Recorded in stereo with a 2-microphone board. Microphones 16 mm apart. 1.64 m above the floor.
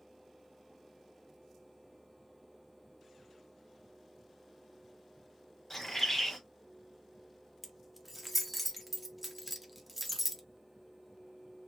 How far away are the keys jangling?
About 0.6 m.